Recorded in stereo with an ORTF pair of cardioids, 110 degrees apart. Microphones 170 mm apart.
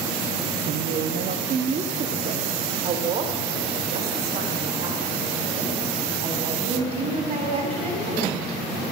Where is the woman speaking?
60° right, 1.0 m; by 8.5 s 35° right, 8.5 m.